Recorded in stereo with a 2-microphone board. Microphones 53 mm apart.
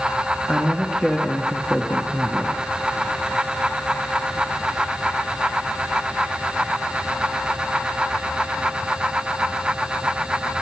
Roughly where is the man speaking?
Centre.